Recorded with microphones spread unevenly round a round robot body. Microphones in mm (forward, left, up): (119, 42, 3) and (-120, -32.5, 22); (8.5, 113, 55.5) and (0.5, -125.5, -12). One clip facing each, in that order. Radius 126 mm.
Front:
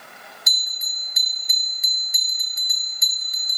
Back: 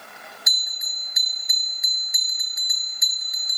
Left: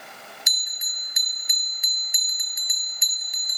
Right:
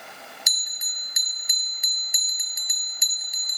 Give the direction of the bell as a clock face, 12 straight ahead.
1 o'clock.